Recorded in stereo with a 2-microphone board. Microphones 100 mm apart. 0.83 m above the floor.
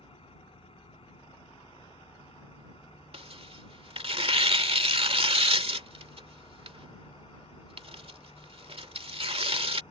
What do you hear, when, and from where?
0.0 s an engine running: 70° left (ahead or behind)
3.1 s tearing paper: 70° right (ahead or behind)